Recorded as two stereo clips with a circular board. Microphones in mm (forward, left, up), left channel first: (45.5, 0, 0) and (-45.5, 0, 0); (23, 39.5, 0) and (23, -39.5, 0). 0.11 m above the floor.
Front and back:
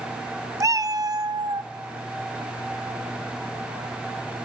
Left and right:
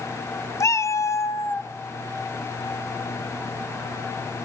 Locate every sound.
0.6 s a cat meowing: 130° left, 0.6 m; by 1.7 s 140° left, 1.1 m